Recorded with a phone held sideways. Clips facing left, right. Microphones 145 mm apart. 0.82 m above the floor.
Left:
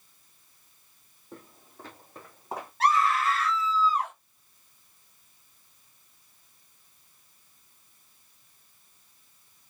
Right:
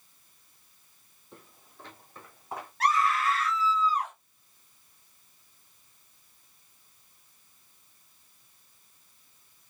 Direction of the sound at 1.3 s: 45° left (ahead or behind).